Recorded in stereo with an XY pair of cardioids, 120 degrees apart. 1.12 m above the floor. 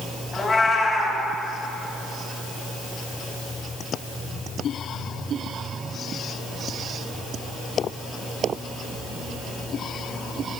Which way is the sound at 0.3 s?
20° left.